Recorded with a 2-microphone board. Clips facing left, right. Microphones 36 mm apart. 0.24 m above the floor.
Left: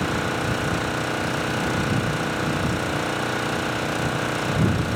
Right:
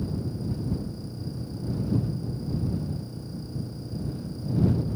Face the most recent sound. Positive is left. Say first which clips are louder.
# left 9 dB
turn(degrees=80)